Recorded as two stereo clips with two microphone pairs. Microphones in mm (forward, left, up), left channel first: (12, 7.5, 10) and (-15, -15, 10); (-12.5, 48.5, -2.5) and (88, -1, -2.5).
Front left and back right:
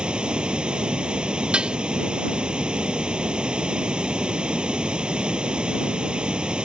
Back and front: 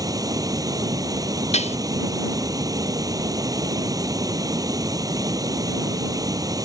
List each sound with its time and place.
0.0 s running water: 80° right
1.5 s dishes clattering: 160° left